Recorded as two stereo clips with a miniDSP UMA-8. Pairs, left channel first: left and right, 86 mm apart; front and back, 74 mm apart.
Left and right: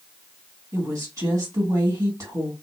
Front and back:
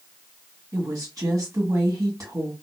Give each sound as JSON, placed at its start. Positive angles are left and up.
{"t": 0.7, "sound": "a woman speaking", "azimuth_deg": -145, "distance_m": 1.6}